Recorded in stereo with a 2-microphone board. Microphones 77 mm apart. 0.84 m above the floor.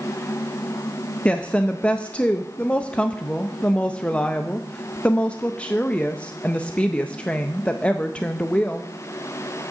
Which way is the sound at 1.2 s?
15° left (ahead or behind).